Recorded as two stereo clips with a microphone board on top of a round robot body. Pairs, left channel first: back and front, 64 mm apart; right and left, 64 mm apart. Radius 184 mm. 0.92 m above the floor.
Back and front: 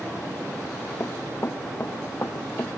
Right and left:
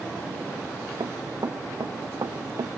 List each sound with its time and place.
1.0 s running footsteps: 125° left; by 2.7 s 120° left